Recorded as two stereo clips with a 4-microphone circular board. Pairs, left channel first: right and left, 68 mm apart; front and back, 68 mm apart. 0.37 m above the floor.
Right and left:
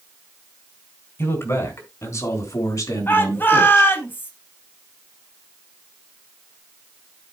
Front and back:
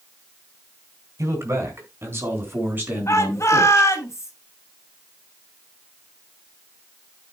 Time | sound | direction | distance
1.2 | a man speaking | 140° right | 4 m
3.1 | a shout | 35° right | 3 m